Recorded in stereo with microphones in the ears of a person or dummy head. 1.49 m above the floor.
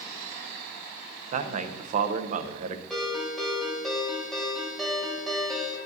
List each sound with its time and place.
1.3 s a man speaking: 45° right (ahead or behind), 0.6 m
2.9 s a ringtone: centre (ahead or behind), 3 m